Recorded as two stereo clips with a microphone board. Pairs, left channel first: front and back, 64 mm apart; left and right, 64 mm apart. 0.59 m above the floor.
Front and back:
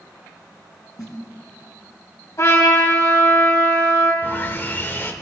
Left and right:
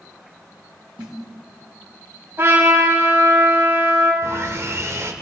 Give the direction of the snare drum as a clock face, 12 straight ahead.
1 o'clock.